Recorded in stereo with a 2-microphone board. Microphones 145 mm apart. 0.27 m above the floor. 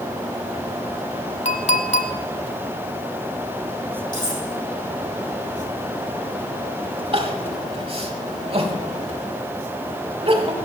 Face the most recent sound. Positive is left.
turn(degrees=-40)  # may be behind; listen again after turning